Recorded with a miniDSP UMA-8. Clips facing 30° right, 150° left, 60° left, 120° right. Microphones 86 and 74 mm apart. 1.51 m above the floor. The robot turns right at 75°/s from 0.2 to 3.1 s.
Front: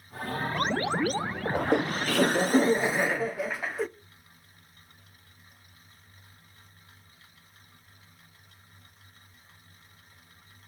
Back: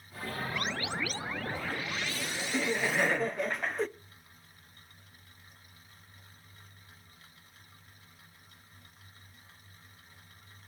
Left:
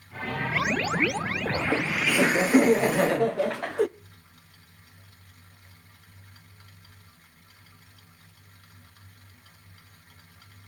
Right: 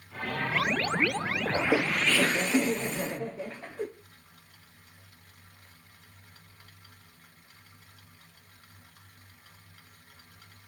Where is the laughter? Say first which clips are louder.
Front 10 dB, right 2 dB; 60° right, 0.6 m; by 3.9 s 55° left, 0.6 m.